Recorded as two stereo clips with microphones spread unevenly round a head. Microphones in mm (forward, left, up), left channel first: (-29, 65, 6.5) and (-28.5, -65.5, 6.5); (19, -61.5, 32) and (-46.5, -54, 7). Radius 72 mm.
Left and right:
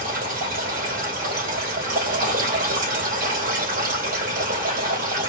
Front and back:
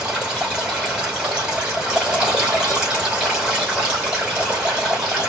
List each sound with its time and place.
0.0 s running water: 110° right, 3 m